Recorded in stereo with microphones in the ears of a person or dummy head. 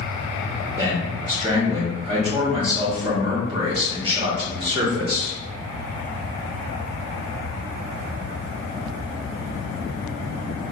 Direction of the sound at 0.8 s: 20° right (ahead or behind).